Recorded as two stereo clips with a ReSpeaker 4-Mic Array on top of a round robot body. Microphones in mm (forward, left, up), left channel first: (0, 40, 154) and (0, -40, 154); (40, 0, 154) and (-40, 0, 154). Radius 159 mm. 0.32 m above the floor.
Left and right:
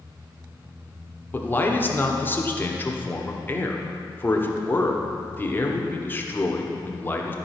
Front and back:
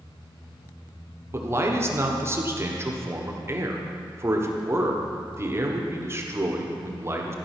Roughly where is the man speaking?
Behind left.